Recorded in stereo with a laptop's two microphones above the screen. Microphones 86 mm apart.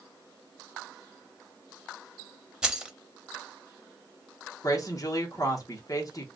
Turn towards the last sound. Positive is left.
turn(degrees=40)  # may be behind; listen again after turning